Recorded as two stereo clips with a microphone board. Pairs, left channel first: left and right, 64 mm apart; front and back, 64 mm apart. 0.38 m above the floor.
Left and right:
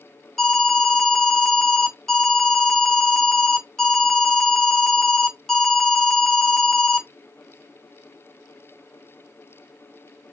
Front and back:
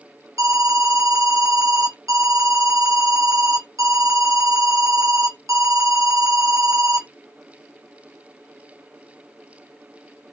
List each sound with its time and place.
0.4 s an alarm: 175° left, 1.0 m